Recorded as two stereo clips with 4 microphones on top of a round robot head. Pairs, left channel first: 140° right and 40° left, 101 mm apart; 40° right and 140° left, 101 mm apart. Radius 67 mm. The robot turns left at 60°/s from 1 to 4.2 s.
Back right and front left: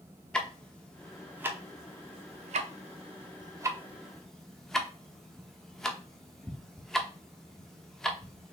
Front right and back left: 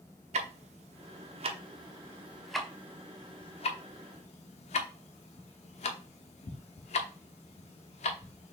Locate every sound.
0.3 s ticking: 140° left, 0.8 m; by 8.5 s 50° right, 0.8 m